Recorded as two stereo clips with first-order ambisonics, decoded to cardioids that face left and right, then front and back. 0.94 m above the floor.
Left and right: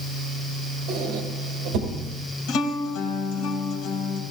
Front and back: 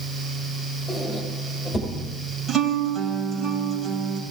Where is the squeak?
70° right, 2.5 m.